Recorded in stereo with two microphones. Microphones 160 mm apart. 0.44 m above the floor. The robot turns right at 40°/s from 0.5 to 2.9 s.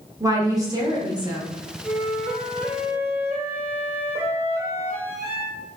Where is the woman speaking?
20° right (ahead or behind), 0.8 m; by 1.5 s 25° right (ahead or behind), 0.8 m.